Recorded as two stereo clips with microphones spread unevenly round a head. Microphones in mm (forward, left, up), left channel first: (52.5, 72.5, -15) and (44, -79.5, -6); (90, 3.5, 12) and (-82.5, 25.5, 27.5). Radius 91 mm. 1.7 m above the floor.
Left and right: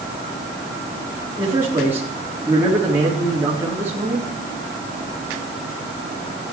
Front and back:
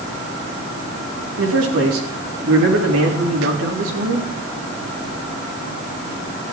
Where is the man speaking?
170° right, 4 m.